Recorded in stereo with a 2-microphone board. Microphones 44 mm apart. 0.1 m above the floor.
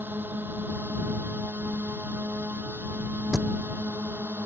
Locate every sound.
0.0 s a drone: 50° right (ahead or behind)
3.3 s a thud: 15° right (ahead or behind)